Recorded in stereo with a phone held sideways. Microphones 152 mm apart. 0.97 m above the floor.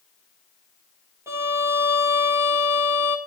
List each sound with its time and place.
1.3 s a violin: 15° right (ahead or behind), 1.6 m